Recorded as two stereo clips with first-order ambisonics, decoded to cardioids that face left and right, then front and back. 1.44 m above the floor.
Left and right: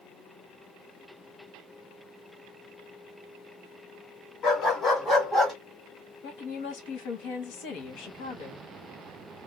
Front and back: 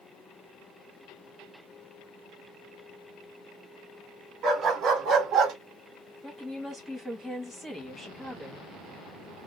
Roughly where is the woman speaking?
Left.